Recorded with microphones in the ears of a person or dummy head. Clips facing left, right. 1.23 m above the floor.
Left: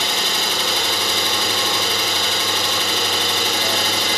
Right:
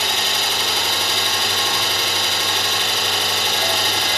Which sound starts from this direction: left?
An engine running, at 0.0 s.